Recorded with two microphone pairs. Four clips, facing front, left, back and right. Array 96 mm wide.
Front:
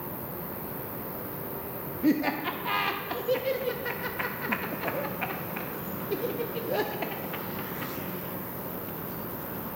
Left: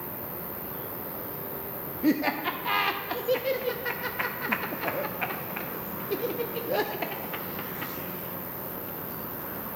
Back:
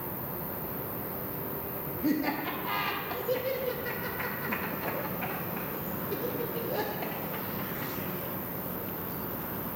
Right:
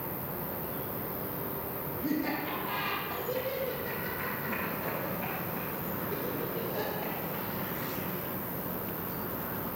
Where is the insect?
130° right, 1.1 m.